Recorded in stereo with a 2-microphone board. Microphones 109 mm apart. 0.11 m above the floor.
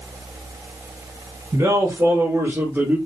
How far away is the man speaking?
About 1.8 m.